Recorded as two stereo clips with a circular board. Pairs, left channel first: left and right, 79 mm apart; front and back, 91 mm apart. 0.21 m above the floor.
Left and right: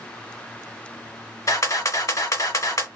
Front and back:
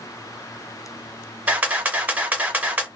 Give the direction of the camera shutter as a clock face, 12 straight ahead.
8 o'clock.